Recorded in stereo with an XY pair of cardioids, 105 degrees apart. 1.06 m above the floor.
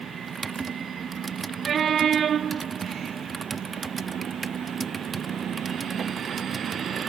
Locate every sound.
0.3 s typing on a keyboard: 30° right